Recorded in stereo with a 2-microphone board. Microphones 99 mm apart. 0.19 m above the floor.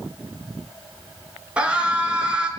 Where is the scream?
10° right (ahead or behind), 2.5 m.